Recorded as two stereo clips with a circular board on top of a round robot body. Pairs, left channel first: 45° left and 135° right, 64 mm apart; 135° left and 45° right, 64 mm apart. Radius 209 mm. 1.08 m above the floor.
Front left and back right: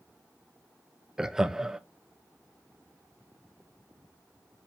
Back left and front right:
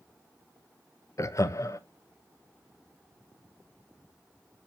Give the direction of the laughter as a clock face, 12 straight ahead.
7 o'clock.